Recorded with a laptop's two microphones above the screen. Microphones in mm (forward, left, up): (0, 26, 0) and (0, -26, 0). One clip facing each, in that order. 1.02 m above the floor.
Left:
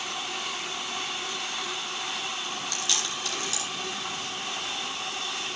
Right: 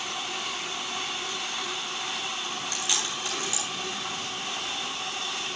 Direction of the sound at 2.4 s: 20° right (ahead or behind).